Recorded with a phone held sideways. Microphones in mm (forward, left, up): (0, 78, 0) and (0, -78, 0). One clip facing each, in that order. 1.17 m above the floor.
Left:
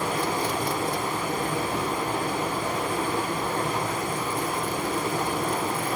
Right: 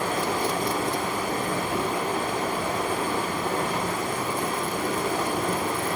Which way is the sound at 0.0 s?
70° right (ahead or behind).